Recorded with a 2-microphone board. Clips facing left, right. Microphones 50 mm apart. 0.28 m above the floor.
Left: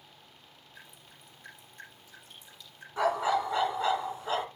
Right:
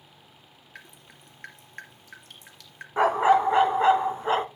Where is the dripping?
70° right (ahead or behind), 2.5 m.